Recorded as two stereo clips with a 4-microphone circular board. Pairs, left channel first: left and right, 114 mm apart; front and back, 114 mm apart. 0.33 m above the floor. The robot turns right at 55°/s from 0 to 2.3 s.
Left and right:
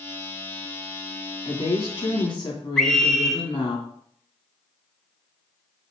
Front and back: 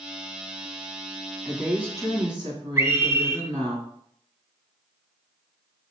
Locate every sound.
1.4 s a woman speaking: 90° left, 2.5 m; by 3.8 s 135° left, 2.5 m
2.8 s a scream: 165° left, 1.1 m